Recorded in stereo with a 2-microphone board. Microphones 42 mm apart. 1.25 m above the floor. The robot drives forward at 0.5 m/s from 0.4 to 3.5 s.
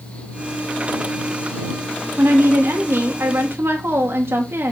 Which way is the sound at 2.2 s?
75° right (ahead or behind).